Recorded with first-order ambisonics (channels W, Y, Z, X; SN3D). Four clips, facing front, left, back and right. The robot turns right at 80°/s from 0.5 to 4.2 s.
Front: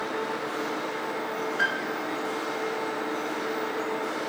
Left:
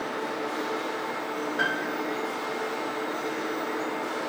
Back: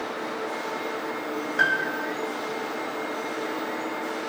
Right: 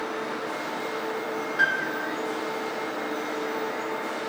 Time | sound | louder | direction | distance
1.6 | a piano | right 4 dB, back 6 dB | 175° right | 2.5 m